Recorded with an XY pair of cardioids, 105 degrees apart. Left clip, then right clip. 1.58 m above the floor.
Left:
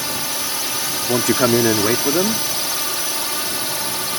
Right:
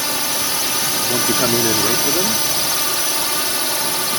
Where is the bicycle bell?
No bicycle bell in this recording.